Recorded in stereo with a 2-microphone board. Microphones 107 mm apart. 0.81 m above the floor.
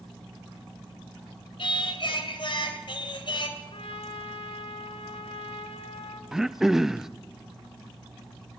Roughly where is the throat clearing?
Centre.